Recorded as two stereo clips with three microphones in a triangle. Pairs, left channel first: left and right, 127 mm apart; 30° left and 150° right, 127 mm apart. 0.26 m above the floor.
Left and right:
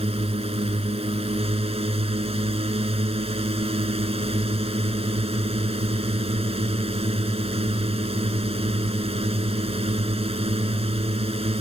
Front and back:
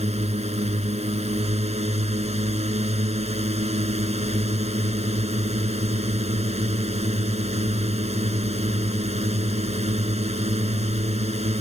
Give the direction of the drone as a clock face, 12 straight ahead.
4 o'clock.